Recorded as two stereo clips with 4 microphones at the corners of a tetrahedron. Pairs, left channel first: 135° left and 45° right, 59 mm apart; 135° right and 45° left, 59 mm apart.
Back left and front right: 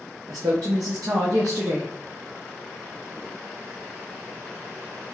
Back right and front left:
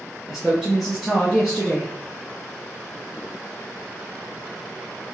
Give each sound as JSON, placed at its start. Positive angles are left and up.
{"t": 0.3, "sound": "a woman speaking", "azimuth_deg": -40, "distance_m": 0.6}